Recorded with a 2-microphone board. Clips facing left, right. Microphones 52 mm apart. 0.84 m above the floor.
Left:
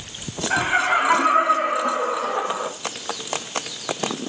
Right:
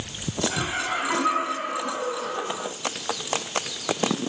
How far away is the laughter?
About 6 m.